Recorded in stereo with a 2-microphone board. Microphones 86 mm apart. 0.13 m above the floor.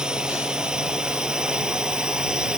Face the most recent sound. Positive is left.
turn(degrees=-10)  # may be behind; listen again after turning